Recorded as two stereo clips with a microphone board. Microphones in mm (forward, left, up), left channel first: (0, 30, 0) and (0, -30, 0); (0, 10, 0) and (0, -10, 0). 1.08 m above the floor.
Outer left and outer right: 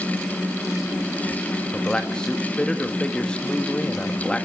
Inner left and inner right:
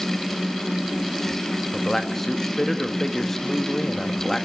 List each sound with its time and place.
1.7 s a man speaking: 15° left (ahead or behind), 1.5 m